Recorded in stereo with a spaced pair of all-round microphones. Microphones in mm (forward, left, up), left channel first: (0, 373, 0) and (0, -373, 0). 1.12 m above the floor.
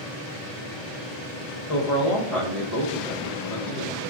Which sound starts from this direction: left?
A man speaking, at 1.7 s.